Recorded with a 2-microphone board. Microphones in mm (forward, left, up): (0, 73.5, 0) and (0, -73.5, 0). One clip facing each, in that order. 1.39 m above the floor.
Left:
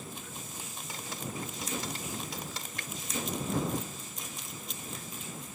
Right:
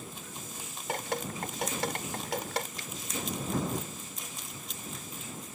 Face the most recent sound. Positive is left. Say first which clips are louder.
# left 1 dB
turn(degrees=75)  # may be behind; listen again after turning